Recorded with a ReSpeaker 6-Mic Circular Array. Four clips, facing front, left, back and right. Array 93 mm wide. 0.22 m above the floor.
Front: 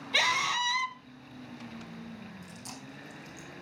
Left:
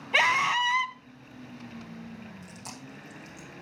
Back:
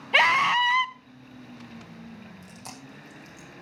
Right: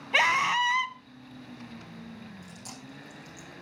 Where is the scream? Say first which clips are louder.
Even, back 9 dB; straight behind, 1.3 m.